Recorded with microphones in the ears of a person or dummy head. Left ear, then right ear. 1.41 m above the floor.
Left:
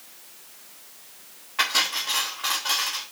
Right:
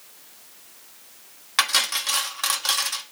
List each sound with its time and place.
1.6 s cutlery clinking: 60° right (ahead or behind), 1.2 m